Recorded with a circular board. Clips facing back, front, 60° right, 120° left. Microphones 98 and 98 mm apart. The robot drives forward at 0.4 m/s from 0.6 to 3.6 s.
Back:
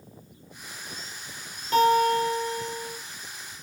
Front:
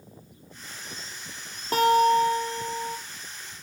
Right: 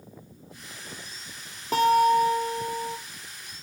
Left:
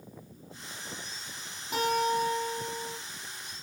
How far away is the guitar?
About 2.5 m.